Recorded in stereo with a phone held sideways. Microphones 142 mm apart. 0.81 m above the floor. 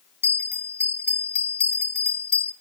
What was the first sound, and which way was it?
A bell, 40° left (ahead or behind).